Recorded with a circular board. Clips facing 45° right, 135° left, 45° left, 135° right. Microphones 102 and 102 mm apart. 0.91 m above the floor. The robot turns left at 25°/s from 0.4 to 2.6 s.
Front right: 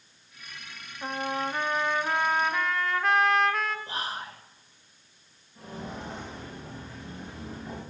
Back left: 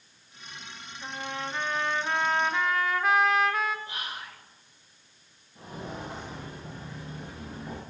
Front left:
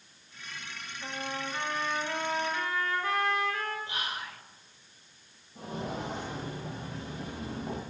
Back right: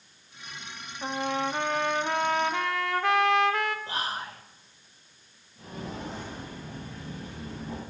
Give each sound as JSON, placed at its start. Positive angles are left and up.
{"t": 1.0, "sound": "a trumpet", "azimuth_deg": -100, "distance_m": 0.6}
{"t": 3.9, "sound": "whispering", "azimuth_deg": -90, "distance_m": 0.7}
{"t": 5.5, "sound": "footsteps", "azimuth_deg": 65, "distance_m": 5.0}